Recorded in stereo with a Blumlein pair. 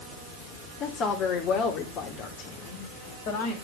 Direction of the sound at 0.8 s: 25° left.